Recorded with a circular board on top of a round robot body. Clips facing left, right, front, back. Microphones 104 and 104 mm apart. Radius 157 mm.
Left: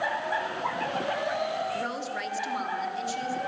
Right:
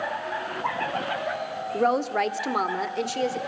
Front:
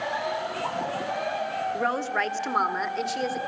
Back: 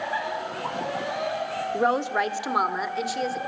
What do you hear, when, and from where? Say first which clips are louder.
1.7 s a woman speaking: right 10 dB, back 6 dB; 115° right, 1.9 m; by 3.4 s 90° right, 2.5 m